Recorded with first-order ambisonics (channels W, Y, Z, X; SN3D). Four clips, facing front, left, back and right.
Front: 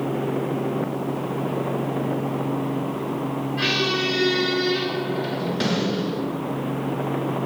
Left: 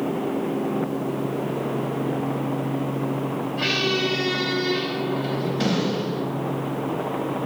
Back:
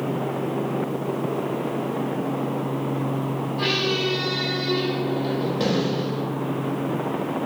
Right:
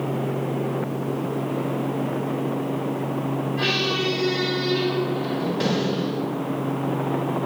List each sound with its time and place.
3.6 s a squeak: 10° right, 1.9 m